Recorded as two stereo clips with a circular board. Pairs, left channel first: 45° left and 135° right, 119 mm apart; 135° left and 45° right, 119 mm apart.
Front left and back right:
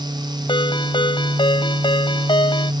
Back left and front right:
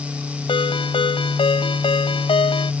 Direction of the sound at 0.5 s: 90° left.